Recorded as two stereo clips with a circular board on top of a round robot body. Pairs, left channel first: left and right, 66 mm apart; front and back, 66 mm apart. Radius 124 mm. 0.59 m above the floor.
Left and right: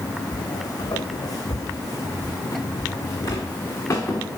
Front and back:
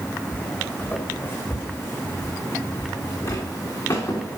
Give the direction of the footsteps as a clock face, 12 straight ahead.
10 o'clock.